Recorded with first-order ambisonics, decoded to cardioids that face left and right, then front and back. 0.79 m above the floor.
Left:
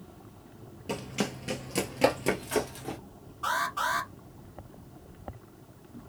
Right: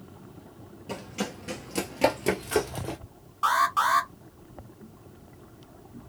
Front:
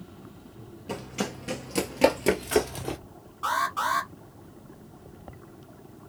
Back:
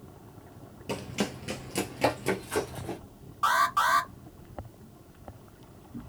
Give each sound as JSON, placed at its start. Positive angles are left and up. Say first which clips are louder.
{"t": 0.9, "sound": "running footsteps", "louder": "left 1 dB, even", "azimuth_deg": 130, "distance_m": 0.8}
{"t": 3.4, "sound": "an alarm", "louder": "right 6 dB, back 3 dB", "azimuth_deg": -125, "distance_m": 2.0}